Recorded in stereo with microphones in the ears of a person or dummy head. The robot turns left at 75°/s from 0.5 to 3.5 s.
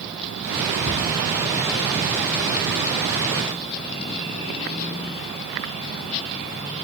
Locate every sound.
0.8 s a cupboard door: 70° left (ahead or behind), 9 m; by 1.2 s 45° left (ahead or behind), 9 m